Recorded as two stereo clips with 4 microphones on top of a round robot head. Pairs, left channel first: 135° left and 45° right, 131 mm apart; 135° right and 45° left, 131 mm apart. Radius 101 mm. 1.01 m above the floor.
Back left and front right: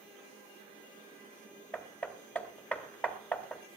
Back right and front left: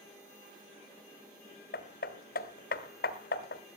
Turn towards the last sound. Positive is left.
turn(degrees=-145)